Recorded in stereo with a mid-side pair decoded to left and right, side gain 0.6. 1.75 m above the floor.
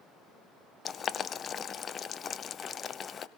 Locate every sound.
0.8 s boiling: 40° left, 0.8 m